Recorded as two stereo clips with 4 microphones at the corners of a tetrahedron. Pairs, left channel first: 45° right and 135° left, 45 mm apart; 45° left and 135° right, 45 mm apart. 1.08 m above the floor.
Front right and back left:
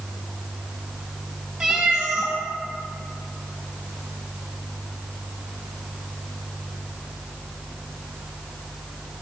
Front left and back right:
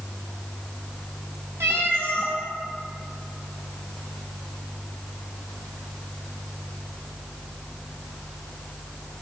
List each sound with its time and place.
1.6 s a cat meowing: 140° right, 3 m